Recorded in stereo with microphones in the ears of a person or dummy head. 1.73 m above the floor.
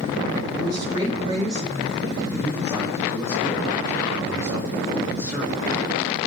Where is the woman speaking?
25° right (ahead or behind), 5.5 m.